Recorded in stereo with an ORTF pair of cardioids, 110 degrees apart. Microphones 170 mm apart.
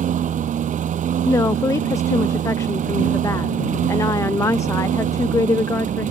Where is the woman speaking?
20° left.